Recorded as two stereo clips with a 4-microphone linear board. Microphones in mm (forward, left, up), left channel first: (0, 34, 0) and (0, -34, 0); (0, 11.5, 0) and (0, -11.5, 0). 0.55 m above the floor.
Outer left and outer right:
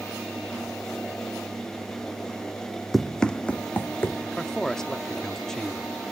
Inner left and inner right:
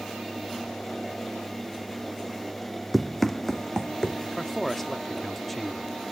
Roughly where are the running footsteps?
Centre.